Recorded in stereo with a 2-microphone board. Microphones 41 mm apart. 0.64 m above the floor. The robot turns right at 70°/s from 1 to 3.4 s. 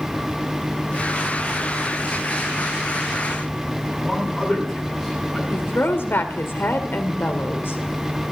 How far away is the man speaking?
About 7 m.